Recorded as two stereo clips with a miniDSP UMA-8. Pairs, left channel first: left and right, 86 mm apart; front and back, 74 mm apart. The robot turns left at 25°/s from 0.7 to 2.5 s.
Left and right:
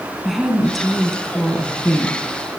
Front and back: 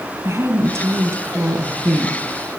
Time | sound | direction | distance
0.2 | a woman speaking | straight behind | 1.3 m